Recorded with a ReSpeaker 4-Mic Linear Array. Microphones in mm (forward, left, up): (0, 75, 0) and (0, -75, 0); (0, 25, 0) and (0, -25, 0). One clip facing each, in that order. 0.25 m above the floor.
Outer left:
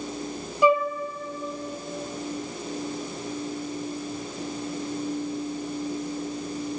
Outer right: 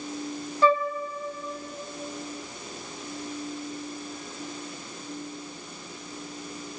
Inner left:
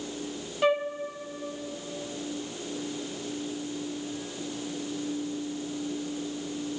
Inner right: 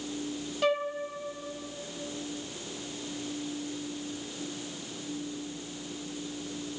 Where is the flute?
15° left (ahead or behind), 1.2 m.